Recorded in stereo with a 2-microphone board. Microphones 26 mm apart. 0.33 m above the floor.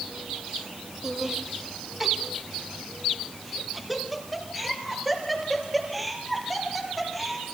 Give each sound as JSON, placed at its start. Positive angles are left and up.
{"t": 1.0, "sound": "laughter", "side_deg": -20, "distance_m": 1.2}